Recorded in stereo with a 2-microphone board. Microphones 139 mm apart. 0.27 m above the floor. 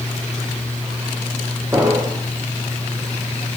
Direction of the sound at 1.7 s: 20° right (ahead or behind).